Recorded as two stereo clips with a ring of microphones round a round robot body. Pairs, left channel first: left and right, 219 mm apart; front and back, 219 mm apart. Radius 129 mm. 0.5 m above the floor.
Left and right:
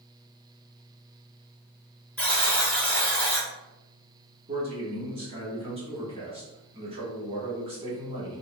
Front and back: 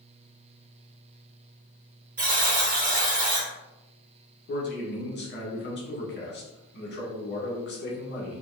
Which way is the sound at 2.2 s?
170° left.